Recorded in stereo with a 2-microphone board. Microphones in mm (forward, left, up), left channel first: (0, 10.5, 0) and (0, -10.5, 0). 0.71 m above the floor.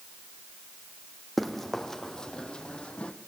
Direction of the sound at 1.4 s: Centre (ahead or behind).